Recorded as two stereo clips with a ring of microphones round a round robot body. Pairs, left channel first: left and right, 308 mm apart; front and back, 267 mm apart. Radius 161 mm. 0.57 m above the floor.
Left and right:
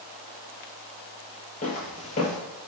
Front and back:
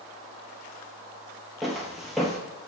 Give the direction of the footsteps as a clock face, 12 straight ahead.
9 o'clock.